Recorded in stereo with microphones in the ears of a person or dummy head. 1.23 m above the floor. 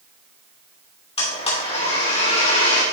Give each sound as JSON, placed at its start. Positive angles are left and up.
{"t": 1.2, "sound": "a blender", "side_deg": 35, "distance_m": 2.5}